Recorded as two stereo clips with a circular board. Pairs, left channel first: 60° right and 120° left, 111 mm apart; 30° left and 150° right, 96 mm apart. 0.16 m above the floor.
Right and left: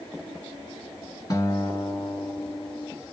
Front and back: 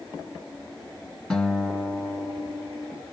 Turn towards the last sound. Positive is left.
turn(degrees=-40)